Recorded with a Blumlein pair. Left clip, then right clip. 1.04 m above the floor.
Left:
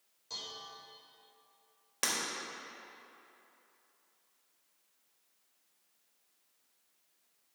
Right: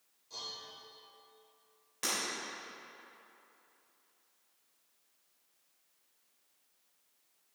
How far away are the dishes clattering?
About 2.5 m.